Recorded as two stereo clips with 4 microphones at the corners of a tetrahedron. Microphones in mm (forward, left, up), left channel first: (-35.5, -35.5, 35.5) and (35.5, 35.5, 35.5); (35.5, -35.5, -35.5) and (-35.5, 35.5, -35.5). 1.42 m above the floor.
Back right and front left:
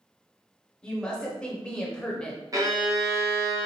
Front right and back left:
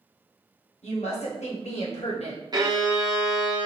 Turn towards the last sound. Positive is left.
turn(degrees=90)